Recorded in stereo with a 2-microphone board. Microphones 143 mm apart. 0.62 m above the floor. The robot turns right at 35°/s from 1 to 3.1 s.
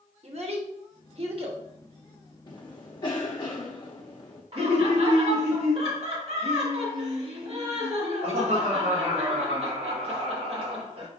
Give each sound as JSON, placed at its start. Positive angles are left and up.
{"t": 0.2, "sound": "a child speaking", "side_deg": -50, "distance_m": 1.1}
{"t": 2.5, "sound": "a cough", "side_deg": 30, "distance_m": 0.7}
{"t": 4.5, "sound": "laughter", "side_deg": -45, "distance_m": 1.5}